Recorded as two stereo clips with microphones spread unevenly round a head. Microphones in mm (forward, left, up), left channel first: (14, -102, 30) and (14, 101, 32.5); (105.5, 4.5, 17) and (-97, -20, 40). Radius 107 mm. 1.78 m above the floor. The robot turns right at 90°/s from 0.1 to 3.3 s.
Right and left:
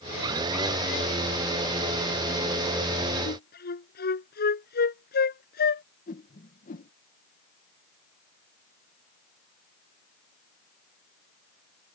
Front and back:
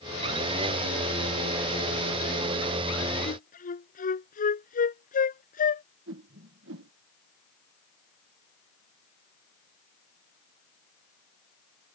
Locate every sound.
3.3 s a flute: 50° right; by 5.8 s 45° right
6.1 s a whoosh: 145° right